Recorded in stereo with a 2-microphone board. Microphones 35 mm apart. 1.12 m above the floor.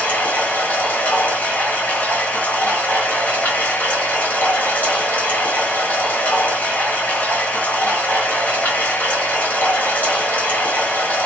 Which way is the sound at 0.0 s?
65° left (ahead or behind).